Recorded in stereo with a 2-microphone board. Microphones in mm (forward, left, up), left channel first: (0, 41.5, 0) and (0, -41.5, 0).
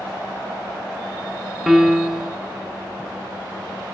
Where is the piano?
5° right (ahead or behind), 0.8 m.